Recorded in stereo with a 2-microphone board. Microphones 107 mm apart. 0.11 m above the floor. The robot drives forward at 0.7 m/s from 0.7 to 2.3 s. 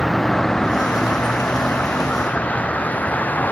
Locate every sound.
0.0 s a vehicle: centre (ahead or behind); by 3.5 s 15° left (ahead or behind)